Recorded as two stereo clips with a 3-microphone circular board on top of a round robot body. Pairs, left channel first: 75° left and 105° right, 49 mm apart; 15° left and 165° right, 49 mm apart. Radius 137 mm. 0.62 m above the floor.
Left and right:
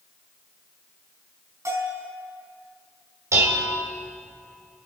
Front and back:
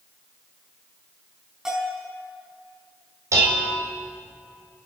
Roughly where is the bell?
Right.